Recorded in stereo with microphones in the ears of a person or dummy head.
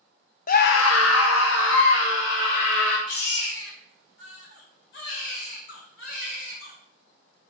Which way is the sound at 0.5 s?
40° left (ahead or behind).